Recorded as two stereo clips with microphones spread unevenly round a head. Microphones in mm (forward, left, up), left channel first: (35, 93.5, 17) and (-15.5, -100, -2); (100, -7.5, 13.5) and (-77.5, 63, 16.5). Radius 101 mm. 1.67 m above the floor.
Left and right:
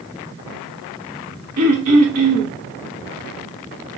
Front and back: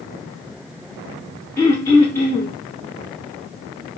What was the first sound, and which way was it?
Throat clearing, 100° right.